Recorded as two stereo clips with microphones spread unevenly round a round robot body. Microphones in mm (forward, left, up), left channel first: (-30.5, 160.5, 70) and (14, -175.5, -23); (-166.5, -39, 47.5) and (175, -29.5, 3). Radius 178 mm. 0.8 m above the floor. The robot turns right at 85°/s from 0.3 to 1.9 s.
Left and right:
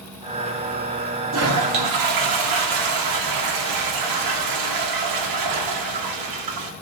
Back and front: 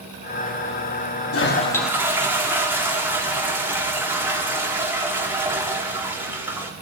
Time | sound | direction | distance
1.3 | a toilet flushing | 130° right | 1.5 m